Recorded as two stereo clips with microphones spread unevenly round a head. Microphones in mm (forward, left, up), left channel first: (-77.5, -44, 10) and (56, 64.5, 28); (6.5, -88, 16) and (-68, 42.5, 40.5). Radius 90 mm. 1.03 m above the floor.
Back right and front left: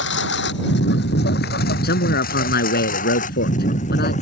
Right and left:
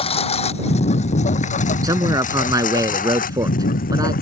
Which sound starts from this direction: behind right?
A lawn mower, at 0.0 s.